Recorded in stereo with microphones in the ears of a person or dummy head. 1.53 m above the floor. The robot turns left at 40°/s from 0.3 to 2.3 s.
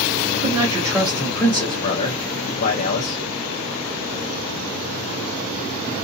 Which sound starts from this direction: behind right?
A man speaking, at 0.4 s.